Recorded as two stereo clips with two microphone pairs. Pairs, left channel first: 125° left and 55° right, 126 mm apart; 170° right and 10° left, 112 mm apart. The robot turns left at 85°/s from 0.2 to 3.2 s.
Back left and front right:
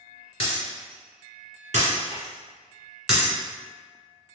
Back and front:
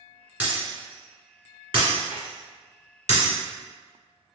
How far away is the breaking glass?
About 1.9 m.